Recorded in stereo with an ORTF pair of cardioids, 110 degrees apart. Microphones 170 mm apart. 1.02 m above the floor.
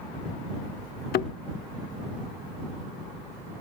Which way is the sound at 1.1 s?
70° left.